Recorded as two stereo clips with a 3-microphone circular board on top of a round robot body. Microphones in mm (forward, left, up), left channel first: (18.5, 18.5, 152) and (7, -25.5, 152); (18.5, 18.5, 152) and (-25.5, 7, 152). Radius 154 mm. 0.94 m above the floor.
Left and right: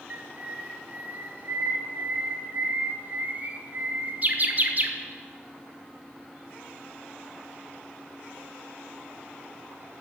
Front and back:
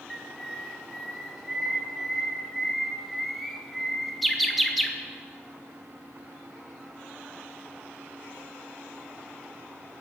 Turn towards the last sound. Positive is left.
turn(degrees=-75)